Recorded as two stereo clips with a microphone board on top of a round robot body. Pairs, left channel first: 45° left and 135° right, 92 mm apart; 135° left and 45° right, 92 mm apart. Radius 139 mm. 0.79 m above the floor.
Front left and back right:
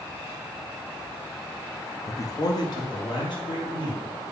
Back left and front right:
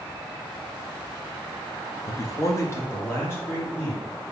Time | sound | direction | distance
2.1 | a man speaking | 95° left | 0.6 m